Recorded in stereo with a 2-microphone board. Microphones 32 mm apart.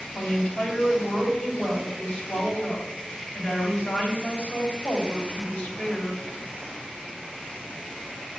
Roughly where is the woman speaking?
Left.